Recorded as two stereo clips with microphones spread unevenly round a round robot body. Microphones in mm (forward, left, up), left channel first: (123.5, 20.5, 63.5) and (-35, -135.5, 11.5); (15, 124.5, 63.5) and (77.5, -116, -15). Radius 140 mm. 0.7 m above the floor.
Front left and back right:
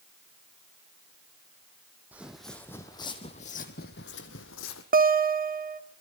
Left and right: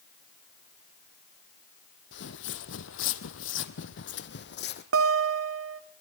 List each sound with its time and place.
2.1 s footsteps: 135° left, 1.4 m; by 4.8 s 70° left, 1.7 m
4.9 s a guitar: 90° right, 1.3 m